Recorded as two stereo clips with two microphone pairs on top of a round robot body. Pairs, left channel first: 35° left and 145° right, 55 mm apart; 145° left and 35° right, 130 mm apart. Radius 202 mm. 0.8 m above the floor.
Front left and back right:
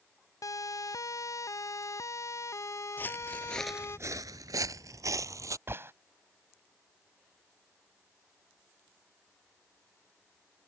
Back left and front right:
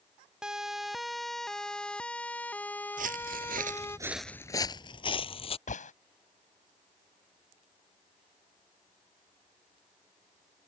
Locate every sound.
0.4 s a siren: 50° left; by 4.0 s 70° left
3.0 s footsteps: 20° right; by 5.6 s 170° right
5.7 s a gunshot: 170° left